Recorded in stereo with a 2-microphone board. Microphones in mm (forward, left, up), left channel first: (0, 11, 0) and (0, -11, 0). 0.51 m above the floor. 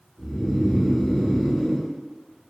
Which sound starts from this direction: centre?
Snoring, at 0.2 s.